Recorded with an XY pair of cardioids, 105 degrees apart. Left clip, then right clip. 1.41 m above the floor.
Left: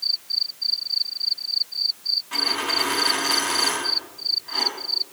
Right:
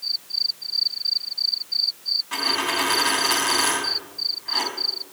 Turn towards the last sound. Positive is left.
turn(degrees=-25)